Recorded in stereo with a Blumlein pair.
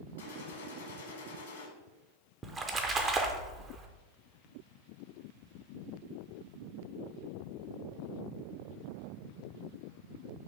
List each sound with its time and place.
0.2 s a gunshot: 60° left, 1.0 m
2.4 s a splash: 20° right, 0.5 m